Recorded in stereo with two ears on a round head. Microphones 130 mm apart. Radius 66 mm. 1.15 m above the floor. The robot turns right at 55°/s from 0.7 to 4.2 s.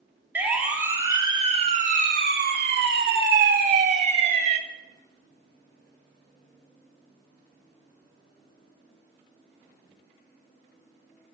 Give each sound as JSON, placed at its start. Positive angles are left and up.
{"t": 0.3, "sound": "a siren", "side_deg": -10, "distance_m": 2.5}